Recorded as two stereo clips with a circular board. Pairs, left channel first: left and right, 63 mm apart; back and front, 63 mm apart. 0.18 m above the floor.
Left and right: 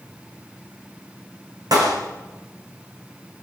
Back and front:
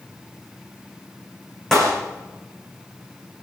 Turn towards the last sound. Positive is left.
turn(degrees=-95)